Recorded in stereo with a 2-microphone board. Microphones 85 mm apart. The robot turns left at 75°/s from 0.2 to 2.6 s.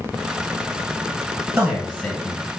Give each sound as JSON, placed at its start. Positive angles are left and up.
{"t": 1.6, "sound": "a man speaking", "azimuth_deg": -165, "distance_m": 1.0}